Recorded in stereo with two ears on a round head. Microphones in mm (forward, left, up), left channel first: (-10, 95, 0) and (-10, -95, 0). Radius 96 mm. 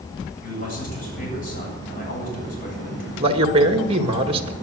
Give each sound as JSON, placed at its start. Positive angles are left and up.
{"t": 0.4, "sound": "a man speaking", "side_deg": 45, "distance_m": 8.5}
{"t": 3.2, "sound": "a man speaking", "side_deg": -30, "distance_m": 1.9}